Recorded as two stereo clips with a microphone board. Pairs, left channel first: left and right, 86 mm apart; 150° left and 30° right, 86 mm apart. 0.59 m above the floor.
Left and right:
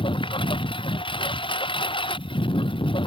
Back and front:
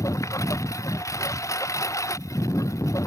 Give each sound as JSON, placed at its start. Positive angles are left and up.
{"t": 0.0, "sound": "a lawn mower", "azimuth_deg": 100}